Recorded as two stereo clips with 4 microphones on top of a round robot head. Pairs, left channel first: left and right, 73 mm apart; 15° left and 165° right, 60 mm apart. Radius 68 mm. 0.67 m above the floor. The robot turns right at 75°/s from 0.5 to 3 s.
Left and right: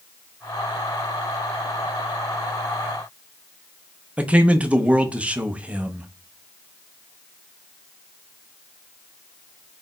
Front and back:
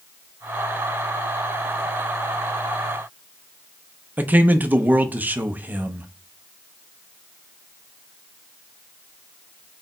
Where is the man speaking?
145° right, 0.5 m.